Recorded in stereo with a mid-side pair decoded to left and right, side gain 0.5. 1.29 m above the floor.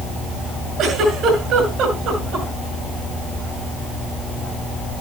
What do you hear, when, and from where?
0.8 s a giggle: 65° right, 6.5 m